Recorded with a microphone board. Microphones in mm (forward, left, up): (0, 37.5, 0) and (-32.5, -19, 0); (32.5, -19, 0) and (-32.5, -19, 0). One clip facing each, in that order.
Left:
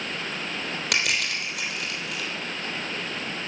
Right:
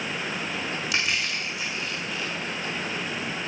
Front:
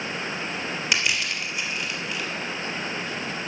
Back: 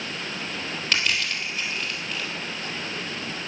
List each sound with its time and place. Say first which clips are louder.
0.9 s crushing: left 2 dB, back 1 dB; 80° left, 3 m